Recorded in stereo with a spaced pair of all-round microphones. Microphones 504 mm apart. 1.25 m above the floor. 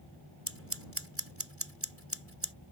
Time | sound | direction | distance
0.5 | scissors | 25° right (ahead or behind) | ?